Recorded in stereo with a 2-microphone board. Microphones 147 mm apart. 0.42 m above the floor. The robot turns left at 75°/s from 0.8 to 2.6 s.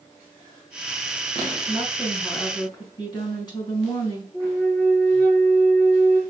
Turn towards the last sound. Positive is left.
turn(degrees=15)  # may be behind; listen again after turning